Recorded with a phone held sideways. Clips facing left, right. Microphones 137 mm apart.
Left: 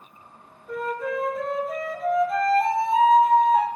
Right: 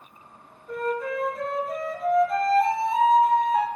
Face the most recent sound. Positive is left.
turn(degrees=5)  # may be behind; listen again after turning